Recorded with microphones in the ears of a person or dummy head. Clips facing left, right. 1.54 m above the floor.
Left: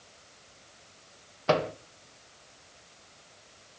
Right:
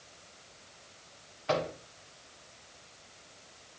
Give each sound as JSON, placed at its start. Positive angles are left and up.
{"t": 1.5, "sound": "a microwave", "side_deg": 60, "distance_m": 1.3}